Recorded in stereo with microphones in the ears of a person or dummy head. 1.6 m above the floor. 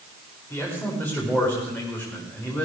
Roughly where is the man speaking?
Centre.